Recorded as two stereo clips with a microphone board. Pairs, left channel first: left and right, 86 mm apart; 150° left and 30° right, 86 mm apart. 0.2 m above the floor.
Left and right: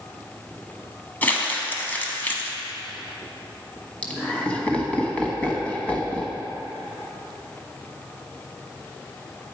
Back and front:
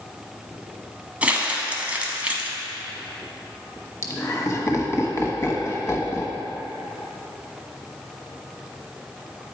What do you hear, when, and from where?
1.2 s crumpling: 35° left, 0.9 m
4.0 s laughter: 150° left, 1.2 m